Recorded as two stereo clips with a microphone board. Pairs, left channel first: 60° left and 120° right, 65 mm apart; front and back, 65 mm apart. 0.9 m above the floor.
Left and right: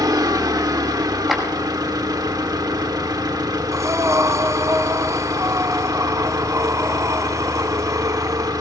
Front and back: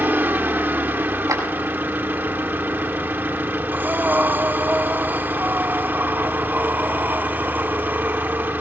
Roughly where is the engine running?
Behind right.